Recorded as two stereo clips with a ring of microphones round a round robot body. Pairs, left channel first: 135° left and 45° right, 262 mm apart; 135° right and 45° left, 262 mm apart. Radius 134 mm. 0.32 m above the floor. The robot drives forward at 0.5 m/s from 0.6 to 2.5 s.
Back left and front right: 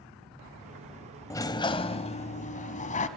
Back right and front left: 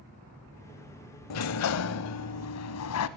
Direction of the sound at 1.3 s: 145° right.